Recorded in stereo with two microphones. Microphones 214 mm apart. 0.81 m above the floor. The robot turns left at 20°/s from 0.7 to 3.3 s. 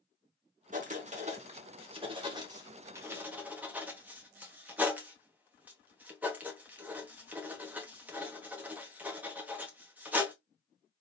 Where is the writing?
40° right (ahead or behind), 1.2 m; by 10.3 s 10° right (ahead or behind), 1.2 m.